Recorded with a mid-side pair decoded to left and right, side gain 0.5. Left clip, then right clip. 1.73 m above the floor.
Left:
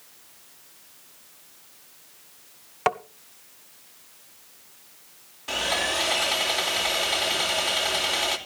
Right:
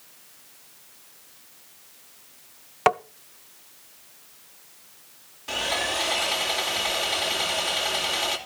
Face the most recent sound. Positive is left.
turn(degrees=15)